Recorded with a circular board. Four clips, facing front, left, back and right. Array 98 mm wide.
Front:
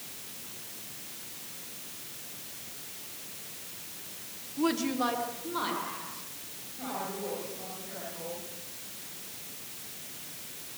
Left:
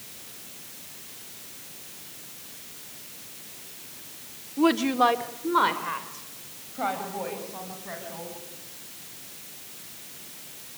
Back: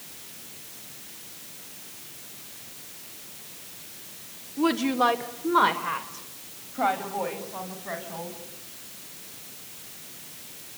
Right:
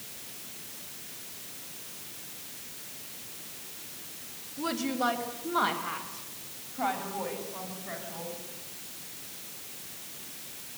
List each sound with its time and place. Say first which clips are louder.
4.6 s a woman speaking: left 9 dB, back 6 dB; 105° left, 1.8 m; by 8.4 s 170° left, 6.5 m